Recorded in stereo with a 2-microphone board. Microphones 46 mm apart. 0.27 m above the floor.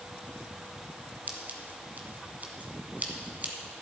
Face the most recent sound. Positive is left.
turn(degrees=-40)  # may be behind; listen again after turning